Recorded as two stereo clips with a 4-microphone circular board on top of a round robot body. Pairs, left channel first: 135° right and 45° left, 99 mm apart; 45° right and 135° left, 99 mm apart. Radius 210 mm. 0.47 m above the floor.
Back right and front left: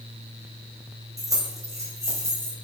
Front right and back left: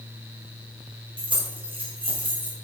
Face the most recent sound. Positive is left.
turn(degrees=110)